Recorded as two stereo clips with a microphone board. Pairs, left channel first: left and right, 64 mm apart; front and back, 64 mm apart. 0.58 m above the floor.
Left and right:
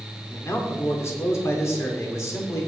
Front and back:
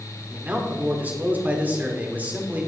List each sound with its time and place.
0.3 s a man speaking: 120° left, 1.8 m